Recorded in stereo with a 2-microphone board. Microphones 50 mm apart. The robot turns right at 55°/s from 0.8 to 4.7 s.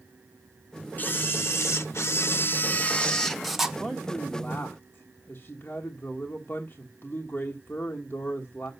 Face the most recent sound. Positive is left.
turn(degrees=40)